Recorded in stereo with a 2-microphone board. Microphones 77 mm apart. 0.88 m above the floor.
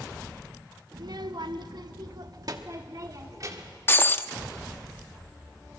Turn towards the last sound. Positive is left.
turn(degrees=30)  # may be behind; listen again after turning